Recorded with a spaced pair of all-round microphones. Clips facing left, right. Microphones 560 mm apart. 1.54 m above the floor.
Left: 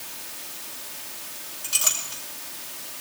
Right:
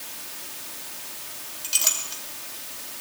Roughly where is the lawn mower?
I don't hear a lawn mower.